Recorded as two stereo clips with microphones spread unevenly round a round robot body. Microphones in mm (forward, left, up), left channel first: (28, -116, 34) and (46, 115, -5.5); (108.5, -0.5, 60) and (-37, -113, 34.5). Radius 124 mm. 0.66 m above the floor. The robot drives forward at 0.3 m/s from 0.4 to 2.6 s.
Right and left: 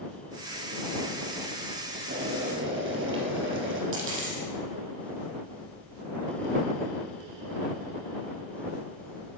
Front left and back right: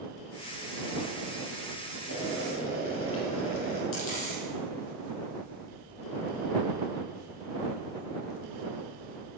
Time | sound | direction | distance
2.1 | boiling | 45° left | 4 m
3.9 | a dropped coin | 50° left | 7 m